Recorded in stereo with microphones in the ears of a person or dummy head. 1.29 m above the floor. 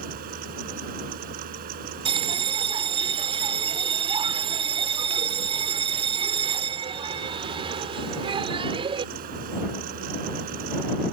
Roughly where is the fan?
Right.